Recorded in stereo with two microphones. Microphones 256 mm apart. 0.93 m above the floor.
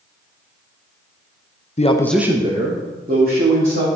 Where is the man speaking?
30° left (ahead or behind), 0.8 m; by 3.9 s 40° right (ahead or behind), 3 m.